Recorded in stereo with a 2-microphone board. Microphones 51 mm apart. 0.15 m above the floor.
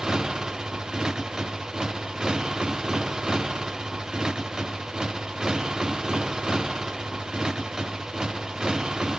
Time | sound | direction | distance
0.0 | a motorcycle | 15° right (ahead or behind) | ?